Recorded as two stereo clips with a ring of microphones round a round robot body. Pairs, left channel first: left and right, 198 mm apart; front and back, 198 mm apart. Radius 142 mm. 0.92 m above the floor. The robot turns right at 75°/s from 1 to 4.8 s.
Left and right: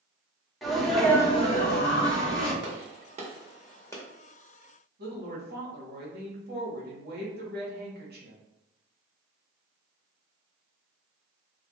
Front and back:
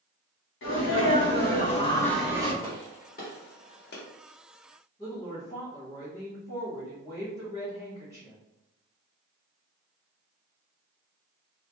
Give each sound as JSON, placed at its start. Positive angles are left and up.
{"t": 0.6, "sound": "a sneeze", "azimuth_deg": 0, "distance_m": 1.2}
{"t": 2.6, "sound": "a gunshot", "azimuth_deg": -80, "distance_m": 0.8}
{"t": 5.0, "sound": "a woman speaking", "azimuth_deg": -75, "distance_m": 1.1}